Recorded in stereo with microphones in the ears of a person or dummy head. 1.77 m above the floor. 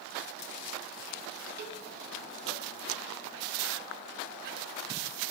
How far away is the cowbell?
About 4.5 m.